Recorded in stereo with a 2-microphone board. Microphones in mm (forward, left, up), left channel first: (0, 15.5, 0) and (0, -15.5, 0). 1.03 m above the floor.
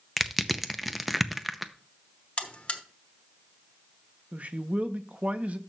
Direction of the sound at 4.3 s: 50° right (ahead or behind).